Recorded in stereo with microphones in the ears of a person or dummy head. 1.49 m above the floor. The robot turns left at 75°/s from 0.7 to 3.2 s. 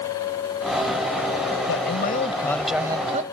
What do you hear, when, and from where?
1.7 s a man speaking: 70° left; by 3.2 s 45° right